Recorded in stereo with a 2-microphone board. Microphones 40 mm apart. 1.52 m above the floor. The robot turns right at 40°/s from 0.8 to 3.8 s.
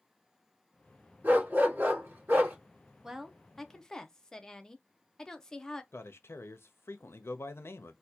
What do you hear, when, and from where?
1.2 s a dog barking: 115° right, 1.9 m; by 2.6 s 65° right, 1.9 m
3.0 s a woman speaking: 10° right, 0.6 m; by 5.8 s 20° left, 0.6 m
5.9 s a man speaking: 85° left, 0.6 m